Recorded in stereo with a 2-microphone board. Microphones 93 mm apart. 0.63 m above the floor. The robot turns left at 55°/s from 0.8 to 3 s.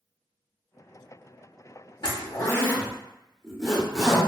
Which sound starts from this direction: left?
A zipper, at 2.0 s.